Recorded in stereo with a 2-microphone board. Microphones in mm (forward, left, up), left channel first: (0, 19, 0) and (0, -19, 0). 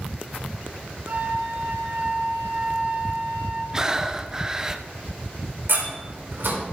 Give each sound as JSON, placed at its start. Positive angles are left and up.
{"t": 1.1, "sound": "a flute", "side_deg": -60, "distance_m": 3.5}
{"t": 3.7, "sound": "breathing", "side_deg": -15, "distance_m": 0.6}
{"t": 5.7, "sound": "a door slam", "side_deg": -70, "distance_m": 4.0}